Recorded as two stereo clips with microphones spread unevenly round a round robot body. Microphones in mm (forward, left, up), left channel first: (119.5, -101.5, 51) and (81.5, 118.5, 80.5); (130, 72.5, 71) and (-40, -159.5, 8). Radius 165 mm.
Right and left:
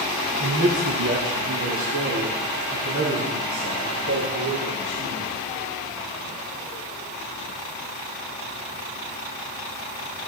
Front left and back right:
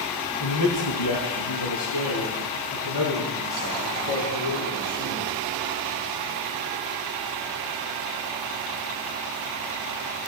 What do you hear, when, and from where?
0.4 s a man speaking: 80° left, 3.5 m; by 5.3 s 75° left, 7 m